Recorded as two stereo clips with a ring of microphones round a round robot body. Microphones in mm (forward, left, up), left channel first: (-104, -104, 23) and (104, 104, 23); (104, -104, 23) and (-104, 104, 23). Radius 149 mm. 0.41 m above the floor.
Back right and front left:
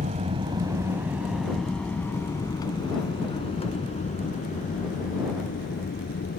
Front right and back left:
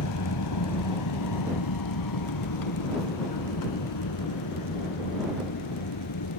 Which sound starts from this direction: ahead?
An aircraft, at 0.0 s.